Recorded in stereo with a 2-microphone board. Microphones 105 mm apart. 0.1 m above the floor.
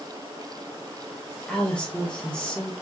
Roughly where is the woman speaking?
Centre.